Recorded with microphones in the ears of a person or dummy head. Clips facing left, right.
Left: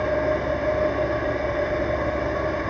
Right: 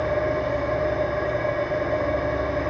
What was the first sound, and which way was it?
An engine running, 70° left (ahead or behind).